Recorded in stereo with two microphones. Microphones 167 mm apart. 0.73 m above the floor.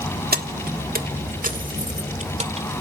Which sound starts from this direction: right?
Keys jangling, at 0.3 s.